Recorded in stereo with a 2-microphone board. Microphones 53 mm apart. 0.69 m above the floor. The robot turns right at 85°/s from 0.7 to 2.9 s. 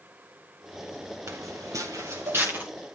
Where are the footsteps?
55° right (ahead or behind), 4.5 m; by 2.6 s 25° right (ahead or behind), 5 m.